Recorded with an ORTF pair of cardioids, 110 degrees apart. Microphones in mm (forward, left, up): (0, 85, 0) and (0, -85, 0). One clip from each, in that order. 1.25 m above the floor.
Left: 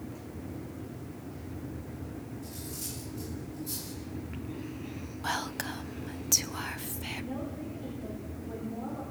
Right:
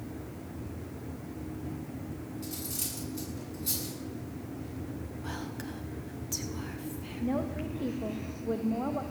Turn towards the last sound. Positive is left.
turn(degrees=-55)